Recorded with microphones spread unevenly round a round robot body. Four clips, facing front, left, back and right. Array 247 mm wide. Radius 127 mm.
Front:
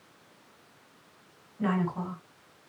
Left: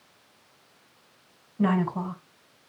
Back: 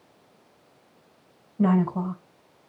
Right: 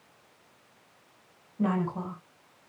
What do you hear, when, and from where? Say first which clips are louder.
1.6 s a woman speaking: left 4 dB, back 7 dB; 170° left, 4.5 m